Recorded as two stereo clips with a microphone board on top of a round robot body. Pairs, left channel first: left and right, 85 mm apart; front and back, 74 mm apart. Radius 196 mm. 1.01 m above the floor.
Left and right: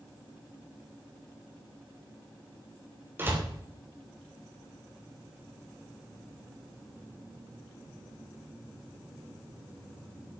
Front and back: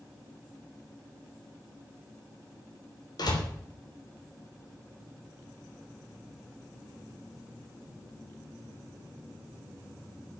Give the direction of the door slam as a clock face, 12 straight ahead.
1 o'clock.